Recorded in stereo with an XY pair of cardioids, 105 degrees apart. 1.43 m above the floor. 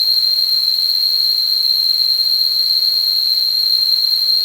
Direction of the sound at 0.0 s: 35° left.